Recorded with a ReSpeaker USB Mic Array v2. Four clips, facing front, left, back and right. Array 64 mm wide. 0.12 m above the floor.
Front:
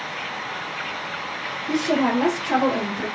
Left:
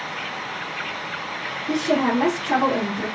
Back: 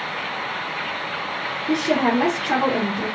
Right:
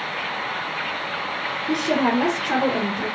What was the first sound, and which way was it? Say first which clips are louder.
A woman speaking: even, back 1 dB; 160° right.